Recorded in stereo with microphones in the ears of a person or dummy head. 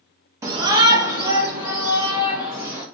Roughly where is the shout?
Centre.